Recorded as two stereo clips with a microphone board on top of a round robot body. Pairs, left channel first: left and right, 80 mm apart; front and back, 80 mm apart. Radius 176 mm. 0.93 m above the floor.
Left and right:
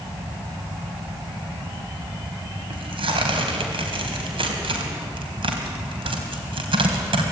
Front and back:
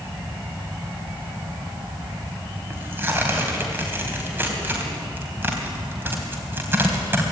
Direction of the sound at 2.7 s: 115° right.